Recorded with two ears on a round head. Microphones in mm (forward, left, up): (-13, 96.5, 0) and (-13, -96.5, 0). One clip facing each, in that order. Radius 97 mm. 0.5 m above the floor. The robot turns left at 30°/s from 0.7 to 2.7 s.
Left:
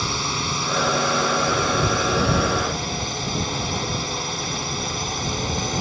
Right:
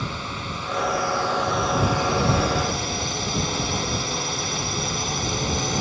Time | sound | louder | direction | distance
0.0 | a drone | left 4 dB | 60° left | ?